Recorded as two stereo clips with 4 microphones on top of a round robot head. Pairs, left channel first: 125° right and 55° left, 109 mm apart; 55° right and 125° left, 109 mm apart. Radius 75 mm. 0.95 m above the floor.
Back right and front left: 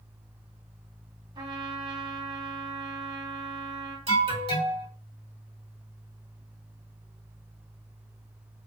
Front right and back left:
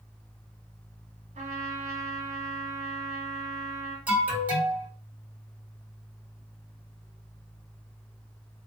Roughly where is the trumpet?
Left.